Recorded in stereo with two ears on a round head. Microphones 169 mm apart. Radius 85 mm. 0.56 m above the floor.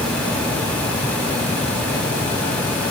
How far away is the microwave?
I don't hear a microwave.